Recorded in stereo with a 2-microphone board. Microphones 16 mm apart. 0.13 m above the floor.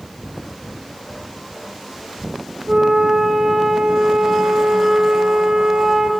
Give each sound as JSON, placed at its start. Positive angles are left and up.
{"t": 2.7, "sound": "a flute", "side_deg": -75, "distance_m": 2.5}